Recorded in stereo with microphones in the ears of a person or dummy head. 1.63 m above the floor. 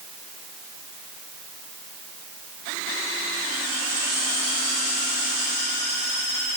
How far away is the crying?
I don't hear crying.